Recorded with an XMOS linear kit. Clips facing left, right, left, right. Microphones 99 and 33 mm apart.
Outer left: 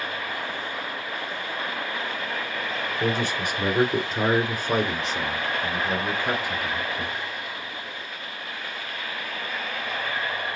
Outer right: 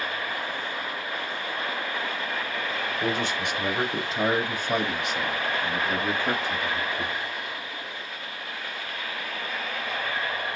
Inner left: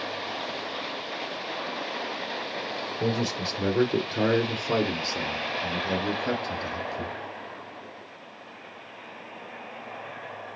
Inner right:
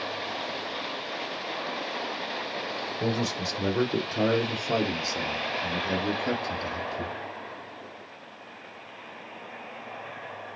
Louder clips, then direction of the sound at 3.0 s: Outer left 2 dB, inner left 1 dB; 45° left (ahead or behind).